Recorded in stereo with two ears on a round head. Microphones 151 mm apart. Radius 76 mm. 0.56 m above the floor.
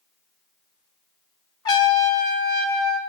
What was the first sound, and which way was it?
A trumpet, 25° left (ahead or behind).